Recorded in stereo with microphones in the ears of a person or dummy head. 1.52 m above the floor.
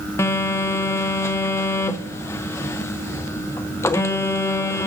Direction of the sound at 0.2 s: 15° left (ahead or behind).